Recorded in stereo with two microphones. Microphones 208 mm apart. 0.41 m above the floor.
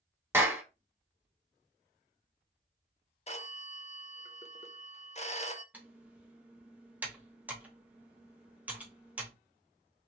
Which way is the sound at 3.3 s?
30° left (ahead or behind).